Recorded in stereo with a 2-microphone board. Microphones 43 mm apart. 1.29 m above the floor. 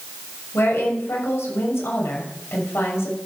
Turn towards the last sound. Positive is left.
turn(degrees=85)